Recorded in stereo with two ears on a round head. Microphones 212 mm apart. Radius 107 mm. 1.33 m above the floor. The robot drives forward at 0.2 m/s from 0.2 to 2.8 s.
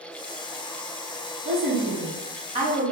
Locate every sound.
1.4 s a woman speaking: 30° right (ahead or behind), 1.5 m; by 2.9 s 25° right (ahead or behind), 1.8 m